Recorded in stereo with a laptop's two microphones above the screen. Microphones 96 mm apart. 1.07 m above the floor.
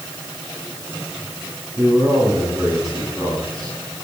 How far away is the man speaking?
About 8 m.